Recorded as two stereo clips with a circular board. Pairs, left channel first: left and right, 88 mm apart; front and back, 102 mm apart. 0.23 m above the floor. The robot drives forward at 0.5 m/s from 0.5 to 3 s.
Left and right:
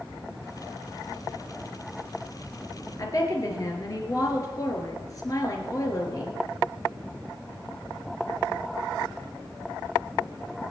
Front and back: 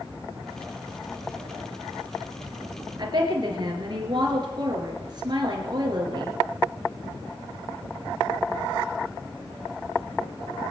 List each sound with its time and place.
3.0 s a woman speaking: 135° left, 3.5 m